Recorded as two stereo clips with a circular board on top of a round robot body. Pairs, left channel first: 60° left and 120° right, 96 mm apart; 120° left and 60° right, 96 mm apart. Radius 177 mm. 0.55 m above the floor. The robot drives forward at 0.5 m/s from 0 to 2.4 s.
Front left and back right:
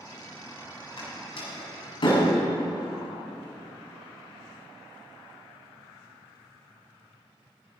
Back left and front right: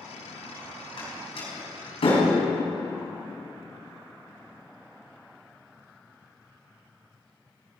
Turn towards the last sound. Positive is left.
turn(degrees=95)